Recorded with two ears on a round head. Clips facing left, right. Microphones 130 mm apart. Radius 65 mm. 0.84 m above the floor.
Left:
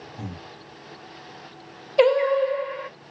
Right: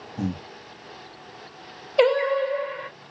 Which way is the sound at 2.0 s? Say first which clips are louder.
Left 2 dB; centre (ahead or behind).